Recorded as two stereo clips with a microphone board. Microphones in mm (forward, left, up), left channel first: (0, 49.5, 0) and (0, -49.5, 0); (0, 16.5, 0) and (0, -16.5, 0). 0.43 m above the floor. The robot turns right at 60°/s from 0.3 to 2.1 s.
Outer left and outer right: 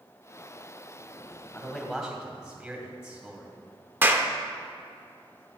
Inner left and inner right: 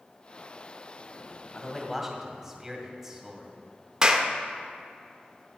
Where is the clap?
20° right (ahead or behind), 0.6 m.